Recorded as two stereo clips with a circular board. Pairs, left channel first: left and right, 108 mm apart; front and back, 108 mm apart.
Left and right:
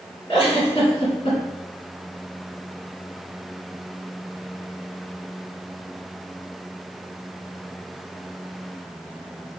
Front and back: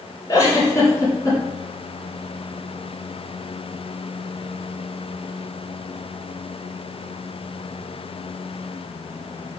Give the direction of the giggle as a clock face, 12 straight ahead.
10 o'clock.